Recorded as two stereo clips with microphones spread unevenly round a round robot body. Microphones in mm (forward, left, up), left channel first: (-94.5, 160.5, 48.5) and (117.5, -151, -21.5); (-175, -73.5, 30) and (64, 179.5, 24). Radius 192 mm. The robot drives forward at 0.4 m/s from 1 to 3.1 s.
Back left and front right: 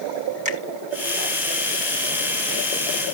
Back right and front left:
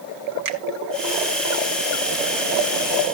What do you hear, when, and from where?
0.5 s a finger snap: 10° left, 3 m